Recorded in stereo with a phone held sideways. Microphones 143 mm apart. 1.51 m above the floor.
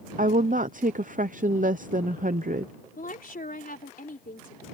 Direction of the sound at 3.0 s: 85° left.